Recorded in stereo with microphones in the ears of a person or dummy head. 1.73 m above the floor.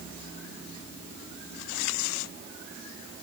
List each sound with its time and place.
Only background noise.